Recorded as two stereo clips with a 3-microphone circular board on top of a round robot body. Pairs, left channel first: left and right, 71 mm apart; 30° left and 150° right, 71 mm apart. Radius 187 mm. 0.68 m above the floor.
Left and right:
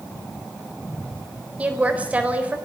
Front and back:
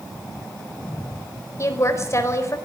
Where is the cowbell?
No cowbell in this recording.